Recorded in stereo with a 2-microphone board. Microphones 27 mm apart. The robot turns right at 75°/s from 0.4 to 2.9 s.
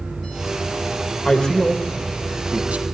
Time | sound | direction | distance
1.2 | a man speaking | 35° left (ahead or behind) | 1.6 m